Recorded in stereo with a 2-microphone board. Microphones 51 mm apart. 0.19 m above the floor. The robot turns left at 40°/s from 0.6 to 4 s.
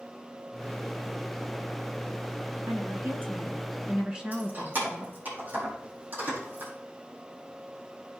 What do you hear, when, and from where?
2.7 s a woman speaking: 105° right, 2.5 m; by 5.2 s 160° right, 2.5 m
4.3 s keys jangling: 40° right (ahead or behind), 5.5 m